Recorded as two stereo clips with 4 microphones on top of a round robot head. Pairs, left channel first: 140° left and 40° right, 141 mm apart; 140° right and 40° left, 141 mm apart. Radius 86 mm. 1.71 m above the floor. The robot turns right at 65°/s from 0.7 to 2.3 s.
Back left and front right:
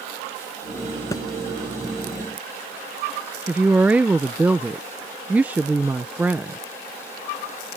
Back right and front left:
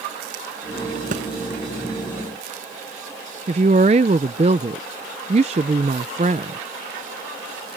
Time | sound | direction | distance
1.1 | a thud | 70° left | ?
3.5 | a woman speaking | 35° left | ?